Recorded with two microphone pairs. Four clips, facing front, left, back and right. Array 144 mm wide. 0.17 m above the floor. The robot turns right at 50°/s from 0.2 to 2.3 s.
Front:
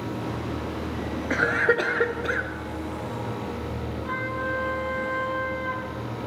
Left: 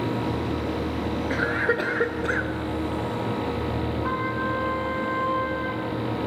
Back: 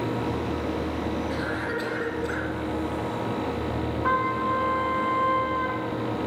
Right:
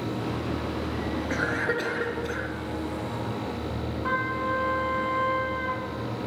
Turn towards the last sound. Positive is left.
turn(degrees=180)